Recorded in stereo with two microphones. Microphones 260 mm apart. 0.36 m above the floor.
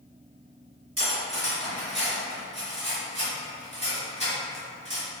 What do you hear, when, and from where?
1.0 s cutlery clinking: 65° right (ahead or behind), 1.6 m